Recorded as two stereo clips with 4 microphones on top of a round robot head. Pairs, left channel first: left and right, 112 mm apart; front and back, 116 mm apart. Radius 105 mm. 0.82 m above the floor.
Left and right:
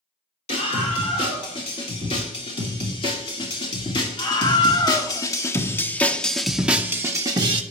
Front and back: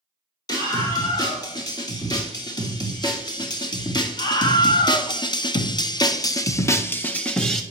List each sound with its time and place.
0.5 s a scream: 55° left, 4 m; by 7.6 s 85° right, 1.0 m